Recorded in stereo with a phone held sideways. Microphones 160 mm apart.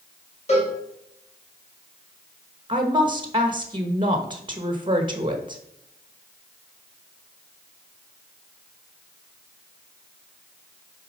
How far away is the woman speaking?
About 1.0 m.